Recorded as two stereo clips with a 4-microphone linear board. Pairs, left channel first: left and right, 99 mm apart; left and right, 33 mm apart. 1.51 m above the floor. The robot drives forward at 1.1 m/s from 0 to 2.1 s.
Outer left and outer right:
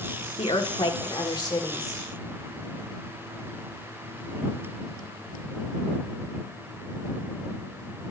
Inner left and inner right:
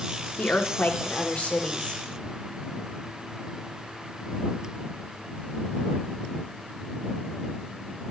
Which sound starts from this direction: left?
A woman speaking, at 0.4 s.